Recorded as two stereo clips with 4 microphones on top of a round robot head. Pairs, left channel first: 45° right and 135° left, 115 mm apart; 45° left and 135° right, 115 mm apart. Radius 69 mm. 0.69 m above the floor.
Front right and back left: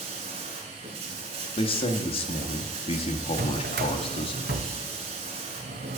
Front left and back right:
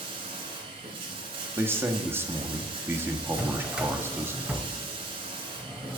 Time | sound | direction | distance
0.0 | running water | 175° left | 1.3 m
1.6 | a man speaking | 70° right | 1.0 m
3.4 | a drawer | 145° left | 0.8 m